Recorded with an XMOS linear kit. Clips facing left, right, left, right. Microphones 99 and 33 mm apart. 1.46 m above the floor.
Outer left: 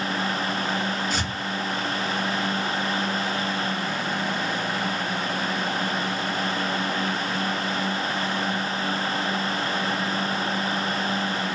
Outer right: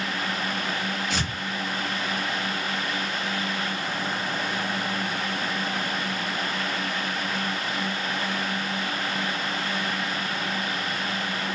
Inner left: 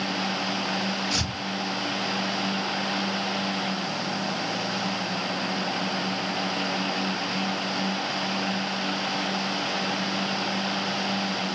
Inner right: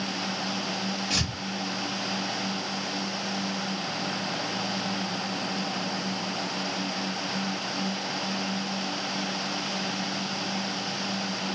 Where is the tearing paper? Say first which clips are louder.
Outer left 1 dB, inner left 1 dB; 75° right (ahead or behind), 2.5 m.